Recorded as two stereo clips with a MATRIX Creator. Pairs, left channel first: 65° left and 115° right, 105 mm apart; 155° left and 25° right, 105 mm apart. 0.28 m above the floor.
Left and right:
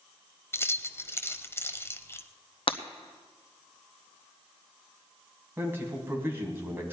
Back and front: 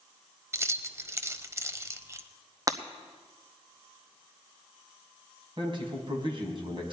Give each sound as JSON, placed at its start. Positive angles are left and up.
{"t": 0.5, "sound": "keys jangling", "azimuth_deg": 20, "distance_m": 0.7}
{"t": 2.7, "sound": "breaking glass", "azimuth_deg": 35, "distance_m": 0.9}
{"t": 5.6, "sound": "a man speaking", "azimuth_deg": -45, "distance_m": 2.5}